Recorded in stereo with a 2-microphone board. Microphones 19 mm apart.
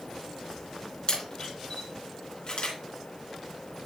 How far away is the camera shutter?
About 3 m.